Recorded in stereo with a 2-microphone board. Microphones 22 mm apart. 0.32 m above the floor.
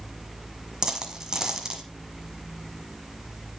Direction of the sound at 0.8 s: 30° right (ahead or behind).